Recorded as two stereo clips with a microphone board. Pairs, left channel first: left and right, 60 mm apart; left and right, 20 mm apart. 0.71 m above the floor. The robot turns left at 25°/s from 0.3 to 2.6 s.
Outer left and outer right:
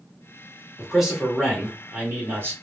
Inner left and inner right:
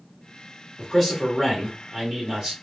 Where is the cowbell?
No cowbell in this recording.